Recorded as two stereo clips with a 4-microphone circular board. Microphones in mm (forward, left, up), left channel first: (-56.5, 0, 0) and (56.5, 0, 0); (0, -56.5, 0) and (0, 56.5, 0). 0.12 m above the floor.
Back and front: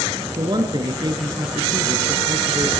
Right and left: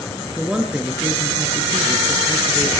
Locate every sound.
0.4 s a man speaking: 10° left, 1.4 m